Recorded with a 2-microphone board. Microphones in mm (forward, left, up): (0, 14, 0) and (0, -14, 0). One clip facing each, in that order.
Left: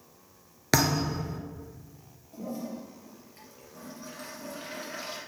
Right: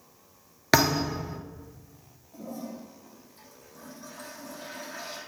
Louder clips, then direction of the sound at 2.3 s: Left 2 dB; 65° left (ahead or behind).